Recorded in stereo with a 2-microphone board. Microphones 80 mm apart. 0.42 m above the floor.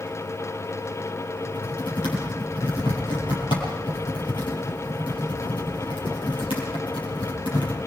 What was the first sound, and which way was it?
Typing on a keyboard, 85° left.